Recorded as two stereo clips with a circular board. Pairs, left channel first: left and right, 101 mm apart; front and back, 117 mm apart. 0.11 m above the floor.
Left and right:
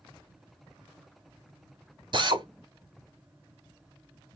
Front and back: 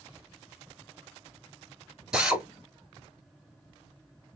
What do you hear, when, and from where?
2.1 s a drill: 100° right, 1.1 m